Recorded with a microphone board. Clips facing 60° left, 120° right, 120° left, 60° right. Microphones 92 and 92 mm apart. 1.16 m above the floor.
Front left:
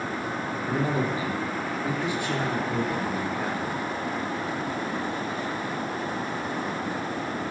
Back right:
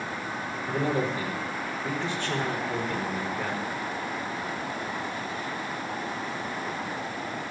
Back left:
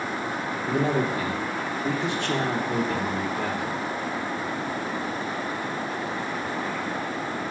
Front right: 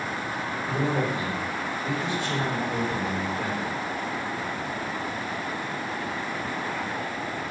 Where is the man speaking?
135° left, 3.5 m.